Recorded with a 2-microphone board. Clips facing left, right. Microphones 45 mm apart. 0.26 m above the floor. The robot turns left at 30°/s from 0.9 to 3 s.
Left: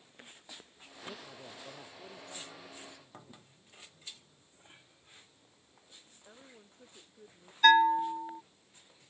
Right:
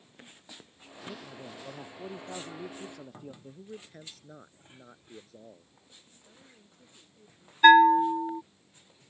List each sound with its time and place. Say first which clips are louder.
1.1 s a man speaking: right 4 dB; straight ahead; by 3.3 s 55° right
3.4 s a man speaking: right 13 dB; 70° right (ahead or behind)
6.2 s a woman speaking: left 4 dB; 35° left (ahead or behind)
7.6 s a bell: right 6 dB; 20° right (ahead or behind)